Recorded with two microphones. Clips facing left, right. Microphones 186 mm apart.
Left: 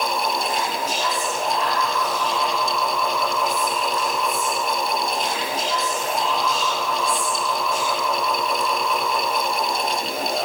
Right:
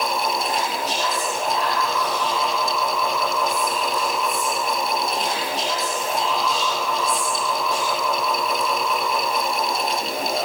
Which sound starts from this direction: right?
Whispering, at 0.4 s.